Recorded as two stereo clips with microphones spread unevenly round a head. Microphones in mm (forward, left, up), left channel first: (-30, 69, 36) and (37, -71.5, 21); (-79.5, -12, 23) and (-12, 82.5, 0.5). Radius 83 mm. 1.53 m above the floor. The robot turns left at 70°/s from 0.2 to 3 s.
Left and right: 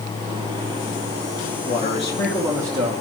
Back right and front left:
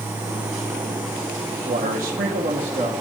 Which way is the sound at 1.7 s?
80° left.